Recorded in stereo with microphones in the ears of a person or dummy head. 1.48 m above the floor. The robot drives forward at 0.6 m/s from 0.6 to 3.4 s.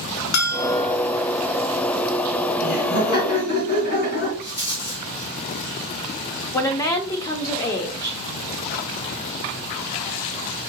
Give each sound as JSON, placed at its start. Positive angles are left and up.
{"t": 0.3, "sound": "a bell", "side_deg": 55, "distance_m": 0.8}
{"t": 2.6, "sound": "laughter", "side_deg": 60, "distance_m": 1.7}
{"t": 4.4, "sound": "a rattle", "side_deg": 55, "distance_m": 1.7}
{"t": 6.5, "sound": "a woman speaking", "side_deg": 15, "distance_m": 0.7}